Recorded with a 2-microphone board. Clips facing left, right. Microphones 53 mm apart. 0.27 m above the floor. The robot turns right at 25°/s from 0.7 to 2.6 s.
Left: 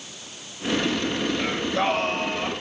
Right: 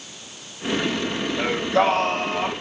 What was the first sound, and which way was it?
Singing, 80° right.